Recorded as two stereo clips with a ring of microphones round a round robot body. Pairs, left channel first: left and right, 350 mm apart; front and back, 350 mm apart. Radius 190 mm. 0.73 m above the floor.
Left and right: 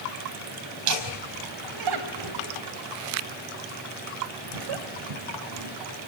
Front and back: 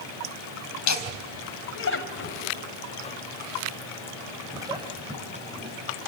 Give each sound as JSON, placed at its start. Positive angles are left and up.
{"t": 0.9, "sound": "laughter", "azimuth_deg": -40, "distance_m": 4.0}